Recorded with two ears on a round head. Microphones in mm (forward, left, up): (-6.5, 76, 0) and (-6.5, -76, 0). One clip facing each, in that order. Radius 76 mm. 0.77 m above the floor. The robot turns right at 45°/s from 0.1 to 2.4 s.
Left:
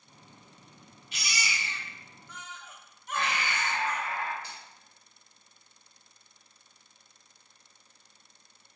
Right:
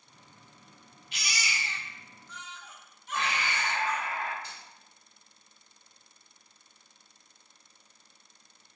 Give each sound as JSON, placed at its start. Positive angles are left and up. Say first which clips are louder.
{"t": 1.1, "sound": "a baby crying", "louder": "left 1 dB", "azimuth_deg": 80, "distance_m": 0.6}
{"t": 3.1, "sound": "breathing", "louder": "left 1 dB", "side_deg": -15, "distance_m": 1.0}
{"t": 4.4, "sound": "a finger snap", "louder": "left 1 dB", "side_deg": 55, "distance_m": 1.8}